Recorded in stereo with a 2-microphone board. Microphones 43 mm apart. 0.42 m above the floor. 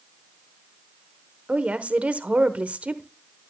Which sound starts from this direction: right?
A woman speaking, at 1.5 s.